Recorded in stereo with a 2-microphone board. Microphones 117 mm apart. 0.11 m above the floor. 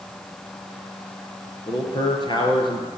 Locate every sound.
1.7 s a man speaking: 35° left (ahead or behind), 2.5 m; by 2.9 s 45° left (ahead or behind), 2 m